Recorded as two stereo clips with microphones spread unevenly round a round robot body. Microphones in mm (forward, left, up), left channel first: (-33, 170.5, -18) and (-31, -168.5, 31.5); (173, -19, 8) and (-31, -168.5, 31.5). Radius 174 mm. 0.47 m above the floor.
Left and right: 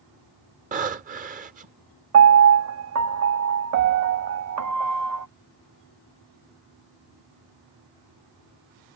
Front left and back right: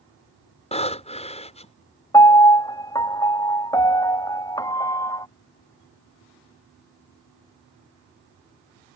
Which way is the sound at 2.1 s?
40° right.